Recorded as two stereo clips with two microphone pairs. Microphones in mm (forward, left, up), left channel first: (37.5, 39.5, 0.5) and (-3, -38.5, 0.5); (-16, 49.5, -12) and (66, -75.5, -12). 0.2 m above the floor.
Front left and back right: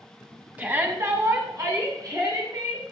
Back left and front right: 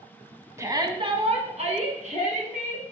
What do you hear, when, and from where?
0.6 s a shout: 80° right, 1.3 m